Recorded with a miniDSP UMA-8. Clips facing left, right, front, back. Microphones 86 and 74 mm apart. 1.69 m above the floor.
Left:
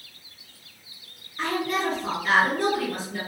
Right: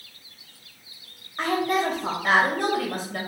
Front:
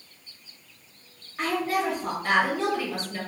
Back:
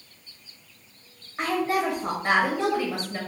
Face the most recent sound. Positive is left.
turn(degrees=-115)